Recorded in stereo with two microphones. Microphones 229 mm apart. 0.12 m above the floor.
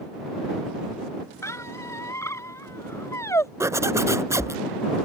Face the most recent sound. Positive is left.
turn(degrees=-15)  # may be behind; listen again after turning